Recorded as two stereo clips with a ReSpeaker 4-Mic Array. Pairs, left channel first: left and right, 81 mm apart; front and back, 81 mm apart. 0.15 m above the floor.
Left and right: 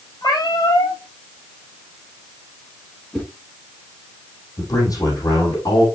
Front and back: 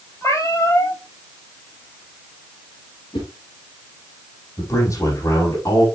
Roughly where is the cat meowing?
Ahead left.